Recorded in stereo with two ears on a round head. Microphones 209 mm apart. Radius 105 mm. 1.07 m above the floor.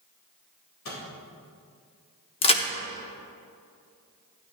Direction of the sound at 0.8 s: 80° left.